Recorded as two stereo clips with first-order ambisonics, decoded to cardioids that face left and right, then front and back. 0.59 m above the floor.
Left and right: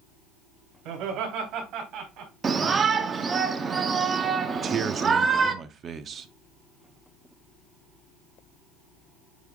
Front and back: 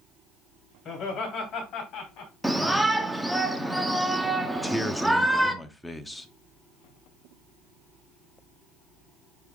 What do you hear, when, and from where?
0.8 s laughter: 55° right, 3 m; by 2.3 s 50° right, 3.5 m
2.4 s a shout: 100° right, 0.6 m
4.5 s a man speaking: 85° right, 0.6 m